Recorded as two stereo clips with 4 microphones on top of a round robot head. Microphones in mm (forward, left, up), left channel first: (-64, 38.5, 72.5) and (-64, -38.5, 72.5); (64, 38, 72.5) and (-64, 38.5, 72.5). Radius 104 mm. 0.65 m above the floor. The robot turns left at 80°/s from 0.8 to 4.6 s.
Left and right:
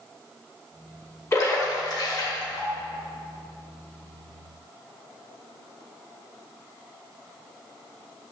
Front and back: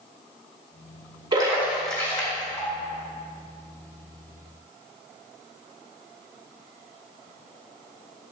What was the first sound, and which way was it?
A splash, 130° left.